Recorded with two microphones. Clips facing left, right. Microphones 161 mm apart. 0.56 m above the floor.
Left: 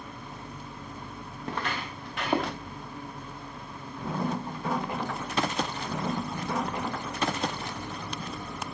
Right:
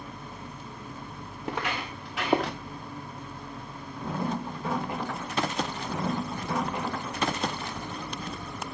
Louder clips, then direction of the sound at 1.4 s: Right 1 dB; 10° right (ahead or behind).